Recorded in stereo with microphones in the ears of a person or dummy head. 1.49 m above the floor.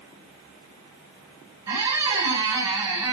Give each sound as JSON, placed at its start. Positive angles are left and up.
{"t": 1.7, "sound": "a squeak", "side_deg": -25, "distance_m": 1.7}